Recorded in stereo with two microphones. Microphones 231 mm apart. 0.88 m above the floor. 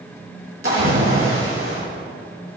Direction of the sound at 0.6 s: 65° right (ahead or behind).